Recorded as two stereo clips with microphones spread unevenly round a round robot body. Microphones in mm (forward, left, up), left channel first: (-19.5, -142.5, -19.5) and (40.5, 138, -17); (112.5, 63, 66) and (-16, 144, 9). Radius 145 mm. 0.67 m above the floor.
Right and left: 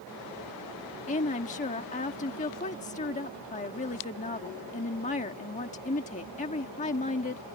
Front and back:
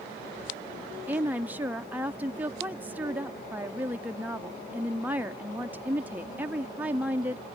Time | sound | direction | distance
1.1 | a woman speaking | 160° right | ?